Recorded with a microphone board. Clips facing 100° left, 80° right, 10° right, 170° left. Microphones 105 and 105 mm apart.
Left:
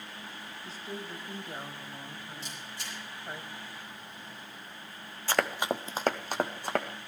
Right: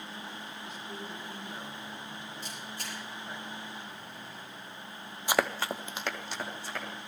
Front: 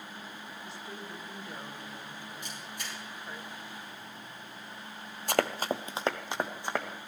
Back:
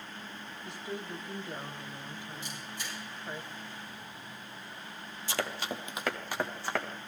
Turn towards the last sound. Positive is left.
turn(degrees=65)